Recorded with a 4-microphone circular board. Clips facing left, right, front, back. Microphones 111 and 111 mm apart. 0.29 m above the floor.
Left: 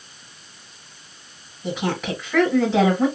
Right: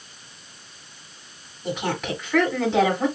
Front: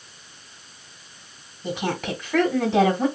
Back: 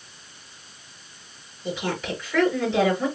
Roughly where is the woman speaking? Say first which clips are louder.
Left 2 dB, front 1 dB; ahead.